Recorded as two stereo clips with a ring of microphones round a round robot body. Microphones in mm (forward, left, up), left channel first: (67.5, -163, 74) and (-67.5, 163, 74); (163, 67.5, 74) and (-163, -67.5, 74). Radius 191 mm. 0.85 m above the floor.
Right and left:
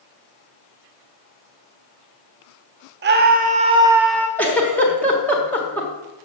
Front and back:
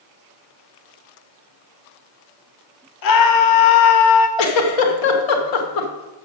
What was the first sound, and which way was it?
A scream, 50° left.